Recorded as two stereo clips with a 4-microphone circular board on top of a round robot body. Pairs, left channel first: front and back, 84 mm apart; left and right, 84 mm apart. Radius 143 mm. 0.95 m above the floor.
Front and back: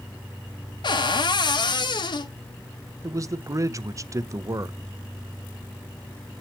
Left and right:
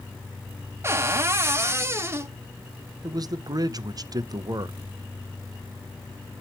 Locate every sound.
0.8 s a cupboard door: 30° right, 1.2 m
3.0 s a man speaking: 130° right, 0.8 m